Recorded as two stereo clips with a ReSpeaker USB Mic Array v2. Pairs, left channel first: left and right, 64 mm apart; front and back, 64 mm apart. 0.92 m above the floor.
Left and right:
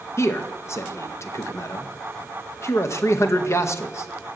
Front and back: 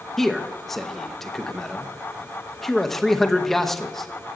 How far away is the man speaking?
About 0.9 m.